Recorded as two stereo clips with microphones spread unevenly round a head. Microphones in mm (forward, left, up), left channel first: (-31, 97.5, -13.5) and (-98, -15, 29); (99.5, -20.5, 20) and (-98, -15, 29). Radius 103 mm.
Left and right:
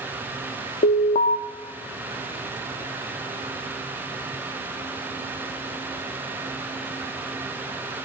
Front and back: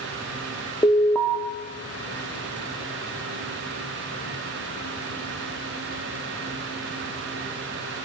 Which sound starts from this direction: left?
An alarm, at 0.8 s.